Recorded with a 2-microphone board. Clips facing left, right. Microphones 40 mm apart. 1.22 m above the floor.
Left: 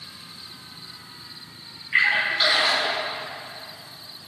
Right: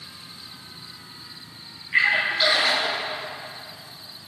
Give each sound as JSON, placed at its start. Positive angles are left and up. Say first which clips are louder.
{"t": 1.9, "sound": "a splash", "louder": "even", "side_deg": 15, "distance_m": 5.5}